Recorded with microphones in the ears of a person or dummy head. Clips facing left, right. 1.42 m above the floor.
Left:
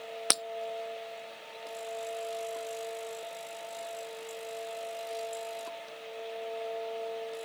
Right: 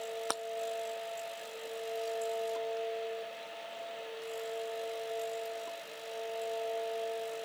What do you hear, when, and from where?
0.3 s breaking glass: 40° left (ahead or behind)